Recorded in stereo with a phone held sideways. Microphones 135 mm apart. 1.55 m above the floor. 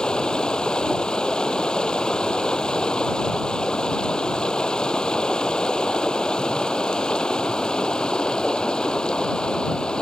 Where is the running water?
5° left (ahead or behind).